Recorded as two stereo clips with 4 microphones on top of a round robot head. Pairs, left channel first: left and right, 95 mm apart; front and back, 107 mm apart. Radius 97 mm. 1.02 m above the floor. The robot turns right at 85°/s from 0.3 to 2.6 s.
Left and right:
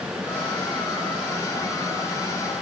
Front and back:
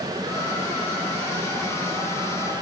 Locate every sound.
Only background noise.